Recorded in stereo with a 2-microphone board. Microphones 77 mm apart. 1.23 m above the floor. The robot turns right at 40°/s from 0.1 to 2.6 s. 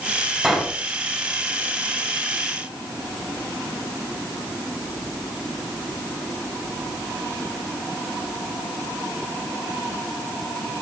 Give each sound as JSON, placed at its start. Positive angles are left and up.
{"t": 0.4, "sound": "a pop", "side_deg": -10, "distance_m": 7.5}